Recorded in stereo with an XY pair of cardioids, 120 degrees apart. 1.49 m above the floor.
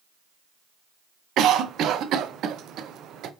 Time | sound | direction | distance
1.4 | a cough | 60° right | 0.5 m